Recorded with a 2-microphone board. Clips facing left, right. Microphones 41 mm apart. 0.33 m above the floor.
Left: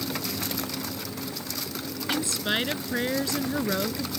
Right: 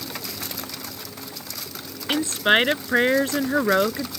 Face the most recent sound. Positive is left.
turn(degrees=-45)  # may be behind; listen again after turning